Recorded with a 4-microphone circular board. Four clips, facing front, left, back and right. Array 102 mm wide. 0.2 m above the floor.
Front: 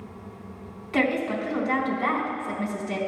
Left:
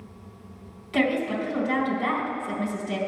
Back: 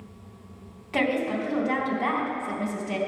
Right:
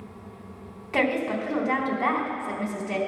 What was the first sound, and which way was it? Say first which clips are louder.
A woman speaking: left 1 dB, front 1 dB; 90° right.